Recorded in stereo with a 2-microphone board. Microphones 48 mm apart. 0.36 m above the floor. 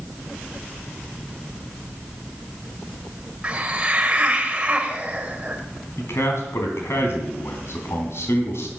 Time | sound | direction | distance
3.4 | a hiss | 25° right (ahead or behind) | 1.9 m
6.0 | a man speaking | 65° left (ahead or behind) | 3 m